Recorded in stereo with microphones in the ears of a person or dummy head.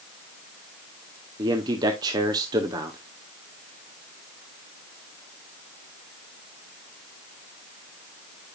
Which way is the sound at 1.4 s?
25° right (ahead or behind).